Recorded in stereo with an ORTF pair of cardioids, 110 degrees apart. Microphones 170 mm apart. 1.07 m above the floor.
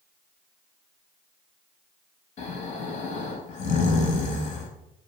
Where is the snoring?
45° left, 0.6 m.